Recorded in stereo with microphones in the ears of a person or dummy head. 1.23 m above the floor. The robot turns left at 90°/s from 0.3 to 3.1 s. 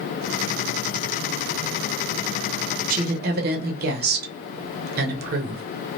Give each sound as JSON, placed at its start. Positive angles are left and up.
{"t": 2.9, "sound": "a woman speaking", "side_deg": -50, "distance_m": 0.8}